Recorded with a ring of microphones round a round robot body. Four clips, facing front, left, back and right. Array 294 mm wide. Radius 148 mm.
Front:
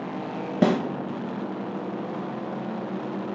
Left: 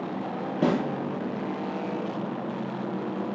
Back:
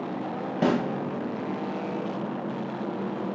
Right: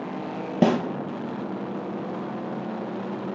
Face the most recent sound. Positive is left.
turn(degrees=-60)